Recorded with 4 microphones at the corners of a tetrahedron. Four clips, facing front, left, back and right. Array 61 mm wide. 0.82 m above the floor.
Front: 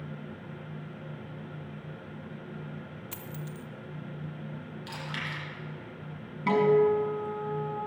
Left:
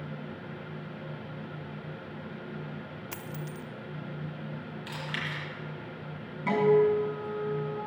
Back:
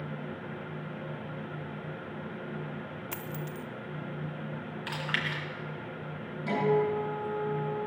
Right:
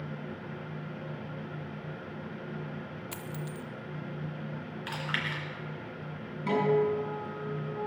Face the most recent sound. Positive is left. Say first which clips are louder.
# left 4 dB, front 5 dB
turn(degrees=20)